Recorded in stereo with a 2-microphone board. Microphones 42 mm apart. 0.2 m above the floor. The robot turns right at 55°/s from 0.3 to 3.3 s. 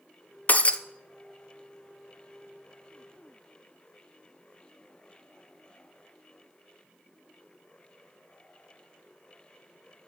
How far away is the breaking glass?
About 0.6 m.